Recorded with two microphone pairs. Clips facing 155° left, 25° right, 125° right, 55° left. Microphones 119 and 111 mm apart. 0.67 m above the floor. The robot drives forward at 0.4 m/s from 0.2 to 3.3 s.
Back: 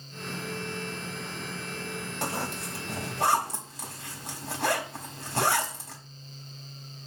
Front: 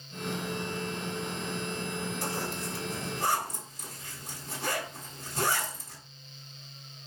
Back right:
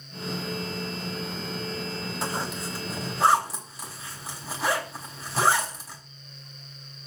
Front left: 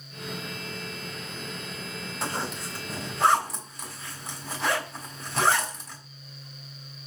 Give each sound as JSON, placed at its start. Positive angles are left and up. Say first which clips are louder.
{"t": 2.2, "sound": "a zipper", "louder": "back 1 dB, front left 1 dB", "azimuth_deg": 145, "distance_m": 4.5}